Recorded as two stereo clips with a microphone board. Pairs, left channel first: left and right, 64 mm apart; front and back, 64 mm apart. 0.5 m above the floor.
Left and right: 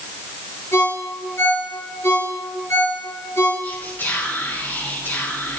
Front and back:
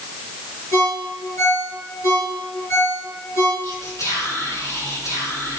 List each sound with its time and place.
0.7 s a ringtone: 45° left, 6.5 m
3.6 s whispering: 30° left, 5 m